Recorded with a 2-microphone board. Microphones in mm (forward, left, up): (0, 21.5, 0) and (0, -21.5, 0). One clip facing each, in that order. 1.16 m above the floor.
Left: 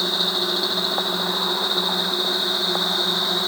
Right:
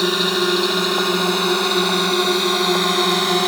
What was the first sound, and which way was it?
A drone, 85° right.